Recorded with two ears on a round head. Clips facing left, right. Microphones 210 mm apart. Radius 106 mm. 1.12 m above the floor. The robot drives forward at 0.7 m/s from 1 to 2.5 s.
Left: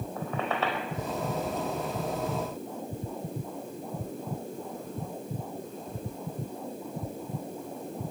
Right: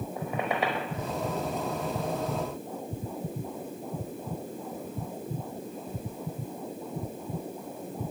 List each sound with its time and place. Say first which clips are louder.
0.2 s a squeak: right 1 dB; 15° right (ahead or behind), 4.5 m